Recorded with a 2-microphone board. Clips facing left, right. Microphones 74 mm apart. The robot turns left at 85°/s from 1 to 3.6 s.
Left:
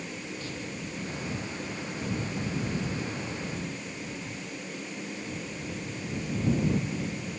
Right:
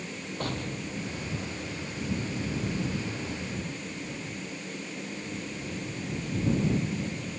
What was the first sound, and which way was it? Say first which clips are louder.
An explosion: right 3 dB; 120° right.